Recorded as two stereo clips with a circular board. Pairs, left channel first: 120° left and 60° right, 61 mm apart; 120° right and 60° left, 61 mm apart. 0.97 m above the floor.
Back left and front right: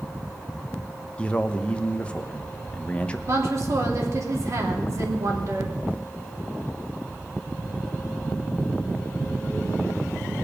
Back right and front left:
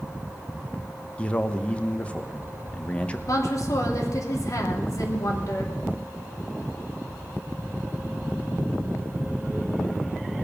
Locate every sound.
1.2 s a man speaking: straight behind, 1.0 m
3.3 s a woman speaking: 90° right, 2.5 m